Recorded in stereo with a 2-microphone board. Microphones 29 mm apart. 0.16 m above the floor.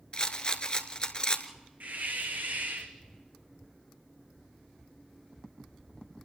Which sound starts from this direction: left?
A rattle, at 0.1 s.